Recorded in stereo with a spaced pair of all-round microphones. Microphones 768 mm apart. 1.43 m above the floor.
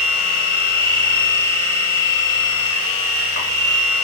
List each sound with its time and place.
0.0 s a machine running: 20° right (ahead or behind), 0.7 m